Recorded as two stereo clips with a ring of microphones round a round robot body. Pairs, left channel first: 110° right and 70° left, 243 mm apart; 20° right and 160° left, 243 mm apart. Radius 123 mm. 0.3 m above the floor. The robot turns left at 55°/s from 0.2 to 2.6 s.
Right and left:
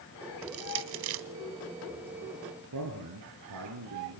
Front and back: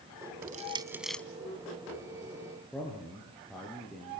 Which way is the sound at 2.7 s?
65° left.